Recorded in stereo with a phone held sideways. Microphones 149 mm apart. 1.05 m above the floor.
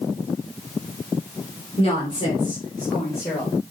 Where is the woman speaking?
40° left (ahead or behind), 3 m; by 3.5 s 20° left (ahead or behind), 4 m.